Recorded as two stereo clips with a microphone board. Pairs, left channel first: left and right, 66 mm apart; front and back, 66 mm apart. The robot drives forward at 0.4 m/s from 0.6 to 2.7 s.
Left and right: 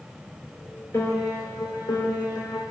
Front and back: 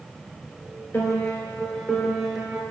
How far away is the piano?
About 0.8 m.